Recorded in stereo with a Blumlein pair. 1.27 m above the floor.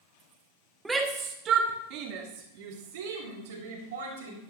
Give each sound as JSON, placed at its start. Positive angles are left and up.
{"t": 0.8, "sound": "a shout", "azimuth_deg": -10, "distance_m": 1.3}